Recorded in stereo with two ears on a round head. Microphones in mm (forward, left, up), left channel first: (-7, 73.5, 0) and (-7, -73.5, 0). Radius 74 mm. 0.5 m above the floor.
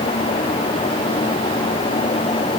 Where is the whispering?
I don't hear whispering.